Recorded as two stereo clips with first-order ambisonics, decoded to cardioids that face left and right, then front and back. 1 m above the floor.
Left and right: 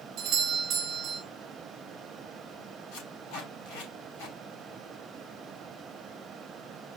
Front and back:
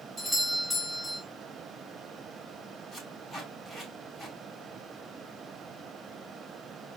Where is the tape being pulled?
80° left, 4 m.